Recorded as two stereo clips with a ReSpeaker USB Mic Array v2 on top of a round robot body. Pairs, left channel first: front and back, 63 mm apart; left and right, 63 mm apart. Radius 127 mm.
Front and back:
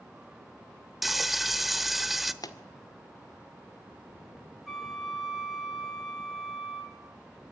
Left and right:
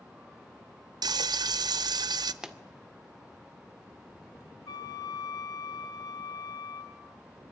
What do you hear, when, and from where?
1.0 s frying: 90° right, 0.9 m
2.4 s a pop: 10° right, 2 m
4.7 s a flute: 90° left, 3.5 m